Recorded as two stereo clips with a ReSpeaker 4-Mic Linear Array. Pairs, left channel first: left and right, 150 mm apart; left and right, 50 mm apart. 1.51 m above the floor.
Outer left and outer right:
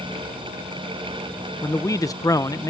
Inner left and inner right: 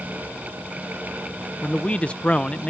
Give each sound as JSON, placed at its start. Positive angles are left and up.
{"t": 1.6, "sound": "a man speaking", "side_deg": 20}